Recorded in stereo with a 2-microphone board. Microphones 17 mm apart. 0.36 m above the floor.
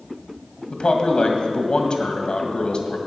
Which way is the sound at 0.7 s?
60° left (ahead or behind).